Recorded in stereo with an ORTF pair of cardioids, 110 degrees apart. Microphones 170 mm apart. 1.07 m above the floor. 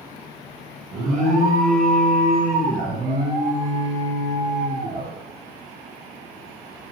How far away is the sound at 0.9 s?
About 1.8 m.